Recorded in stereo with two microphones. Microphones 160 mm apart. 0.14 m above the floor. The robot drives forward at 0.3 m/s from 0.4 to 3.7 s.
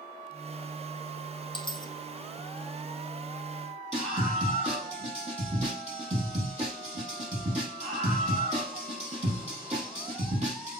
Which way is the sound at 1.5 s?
30° left (ahead or behind).